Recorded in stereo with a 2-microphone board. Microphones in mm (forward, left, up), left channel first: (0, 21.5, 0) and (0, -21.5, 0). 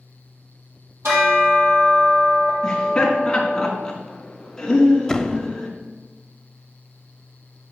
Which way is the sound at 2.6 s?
15° left (ahead or behind).